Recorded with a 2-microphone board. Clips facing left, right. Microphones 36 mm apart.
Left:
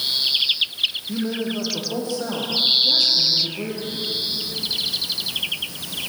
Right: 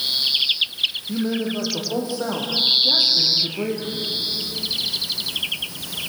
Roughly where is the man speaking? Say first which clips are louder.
Right 1 dB; centre.